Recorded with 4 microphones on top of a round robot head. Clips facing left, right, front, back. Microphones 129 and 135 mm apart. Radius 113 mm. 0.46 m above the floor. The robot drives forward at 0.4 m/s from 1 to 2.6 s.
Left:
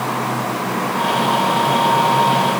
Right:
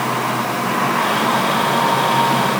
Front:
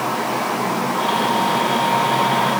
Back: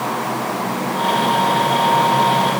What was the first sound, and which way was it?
Only background noise.